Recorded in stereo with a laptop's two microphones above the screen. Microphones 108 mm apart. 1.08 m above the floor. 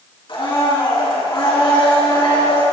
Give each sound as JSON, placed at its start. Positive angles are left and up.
{"t": 0.3, "sound": "a blender", "side_deg": 55, "distance_m": 4.0}